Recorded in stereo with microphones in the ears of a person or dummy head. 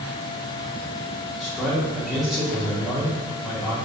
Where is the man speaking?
Centre (ahead or behind), 1.2 m.